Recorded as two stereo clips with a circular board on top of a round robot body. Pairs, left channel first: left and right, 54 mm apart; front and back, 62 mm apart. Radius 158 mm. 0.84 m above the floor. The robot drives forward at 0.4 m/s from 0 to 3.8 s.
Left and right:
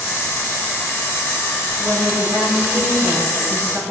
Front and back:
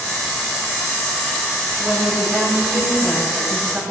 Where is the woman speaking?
115° right, 7 m; by 3.8 s 120° right, 7 m.